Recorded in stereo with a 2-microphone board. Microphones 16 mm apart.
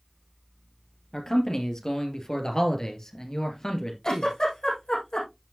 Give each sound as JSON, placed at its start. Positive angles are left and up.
{"t": 1.1, "sound": "a man speaking", "side_deg": 45, "distance_m": 2.5}
{"t": 4.0, "sound": "a giggle", "side_deg": 65, "distance_m": 4.5}